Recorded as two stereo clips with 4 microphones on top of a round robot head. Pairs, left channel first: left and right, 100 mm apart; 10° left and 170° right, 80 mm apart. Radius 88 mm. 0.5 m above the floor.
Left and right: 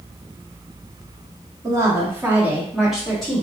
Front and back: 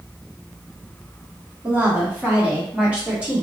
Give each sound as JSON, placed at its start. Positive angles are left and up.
{"t": 1.6, "sound": "a woman speaking", "azimuth_deg": -115, "distance_m": 1.5}